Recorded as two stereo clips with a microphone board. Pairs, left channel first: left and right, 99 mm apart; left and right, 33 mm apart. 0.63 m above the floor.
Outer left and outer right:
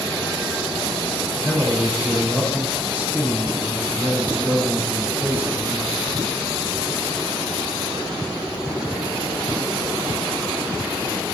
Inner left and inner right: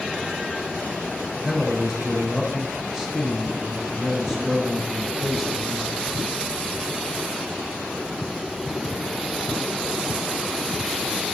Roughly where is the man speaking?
Right.